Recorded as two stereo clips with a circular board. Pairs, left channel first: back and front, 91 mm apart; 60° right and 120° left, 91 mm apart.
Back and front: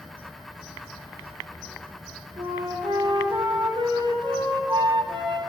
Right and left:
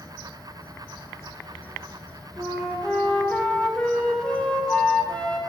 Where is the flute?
20° left, 2.5 m.